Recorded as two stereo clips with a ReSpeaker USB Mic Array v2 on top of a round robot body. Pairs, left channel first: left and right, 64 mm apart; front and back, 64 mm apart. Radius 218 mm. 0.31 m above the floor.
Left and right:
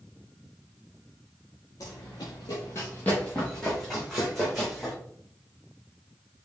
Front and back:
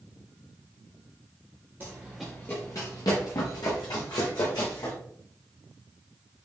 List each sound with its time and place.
1.8 s running footsteps: 125° left, 0.6 m; by 5.0 s straight ahead, 2 m